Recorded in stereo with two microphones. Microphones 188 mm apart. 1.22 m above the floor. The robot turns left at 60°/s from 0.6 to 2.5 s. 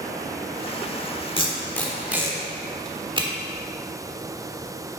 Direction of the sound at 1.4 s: 30° left (ahead or behind).